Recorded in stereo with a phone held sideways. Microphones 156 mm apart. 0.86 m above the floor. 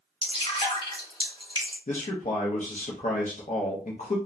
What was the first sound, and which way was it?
Dripping, 35° left (ahead or behind).